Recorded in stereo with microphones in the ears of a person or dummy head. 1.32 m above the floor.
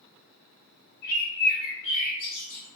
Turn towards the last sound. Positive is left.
turn(degrees=55)  # may be behind; listen again after turning